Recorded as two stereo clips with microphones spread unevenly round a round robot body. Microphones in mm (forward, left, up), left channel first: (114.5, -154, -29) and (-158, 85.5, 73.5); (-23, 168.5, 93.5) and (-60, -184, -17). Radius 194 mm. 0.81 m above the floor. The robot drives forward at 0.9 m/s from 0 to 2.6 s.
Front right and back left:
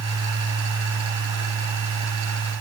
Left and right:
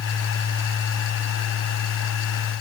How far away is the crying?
I don't hear crying.